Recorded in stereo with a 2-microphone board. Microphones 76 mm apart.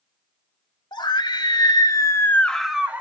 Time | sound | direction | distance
0.9 | a scream | 80° left | 2.5 m